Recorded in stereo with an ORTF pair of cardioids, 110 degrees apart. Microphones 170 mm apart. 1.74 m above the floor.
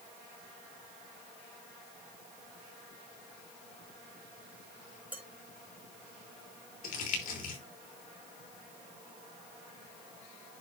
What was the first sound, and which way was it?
Dishes clattering, 10° right.